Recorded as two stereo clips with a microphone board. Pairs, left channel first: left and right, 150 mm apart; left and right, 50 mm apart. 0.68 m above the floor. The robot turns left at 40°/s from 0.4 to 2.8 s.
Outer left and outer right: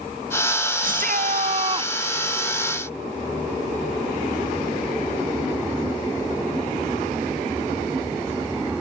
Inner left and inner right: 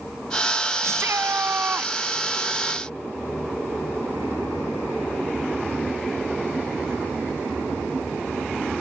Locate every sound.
0.8 s a shout: 105° right; by 1.9 s 150° right